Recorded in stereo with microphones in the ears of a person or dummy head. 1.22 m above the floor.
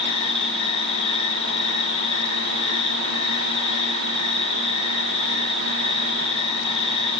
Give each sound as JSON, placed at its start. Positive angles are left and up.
{"t": 0.0, "sound": "an insect", "side_deg": 35, "distance_m": 6.0}